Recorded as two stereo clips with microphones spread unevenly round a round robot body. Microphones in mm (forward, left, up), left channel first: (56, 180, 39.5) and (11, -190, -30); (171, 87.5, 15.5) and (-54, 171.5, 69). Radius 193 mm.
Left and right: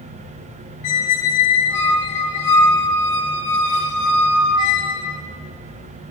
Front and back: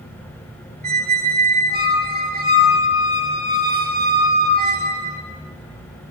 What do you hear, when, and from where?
0.8 s a squeak: 100° left, 1.1 m